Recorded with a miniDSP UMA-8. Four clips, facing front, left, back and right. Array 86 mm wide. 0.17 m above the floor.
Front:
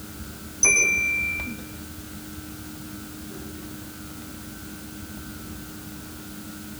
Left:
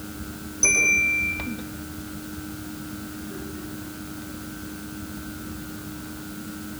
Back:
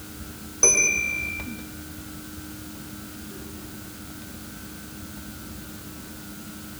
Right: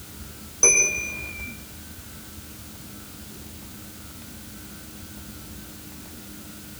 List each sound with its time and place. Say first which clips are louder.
0.6 s a bell: left 2 dB, front 1 dB; 150° right, 6.5 m